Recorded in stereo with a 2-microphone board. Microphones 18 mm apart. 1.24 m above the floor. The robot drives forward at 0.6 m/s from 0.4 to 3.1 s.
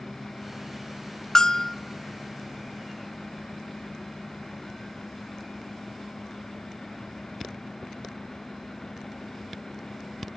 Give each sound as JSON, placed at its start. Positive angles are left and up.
{"t": 1.4, "sound": "a bell", "side_deg": 35, "distance_m": 1.0}